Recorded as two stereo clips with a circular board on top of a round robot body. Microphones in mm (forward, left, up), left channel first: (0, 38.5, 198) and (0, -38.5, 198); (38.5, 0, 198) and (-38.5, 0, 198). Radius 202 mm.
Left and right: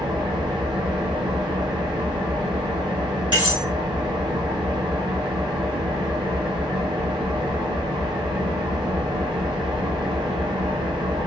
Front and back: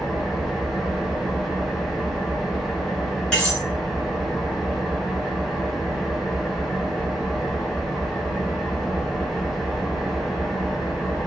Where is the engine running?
95° right, 0.9 m.